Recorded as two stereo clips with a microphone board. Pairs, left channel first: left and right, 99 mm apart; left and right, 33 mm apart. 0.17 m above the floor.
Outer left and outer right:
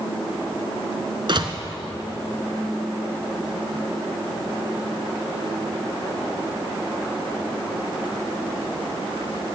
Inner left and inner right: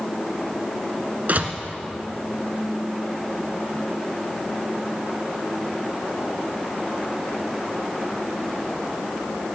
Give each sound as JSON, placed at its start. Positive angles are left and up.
{"t": 1.3, "sound": "a door slam", "side_deg": -55, "distance_m": 1.6}